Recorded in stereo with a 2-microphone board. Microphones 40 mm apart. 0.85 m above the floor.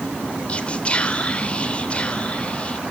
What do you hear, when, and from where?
0.5 s whispering: 30° left (ahead or behind), 3 m